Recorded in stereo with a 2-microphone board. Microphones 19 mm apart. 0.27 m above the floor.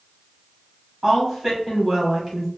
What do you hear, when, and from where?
1.0 s a woman speaking: 10° right (ahead or behind), 2.0 m